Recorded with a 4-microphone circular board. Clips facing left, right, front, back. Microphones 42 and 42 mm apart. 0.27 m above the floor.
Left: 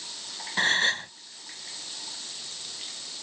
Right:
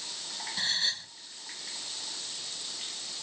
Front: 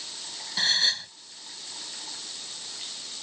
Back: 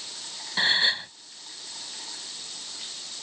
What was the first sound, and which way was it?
A gasp, 115° left.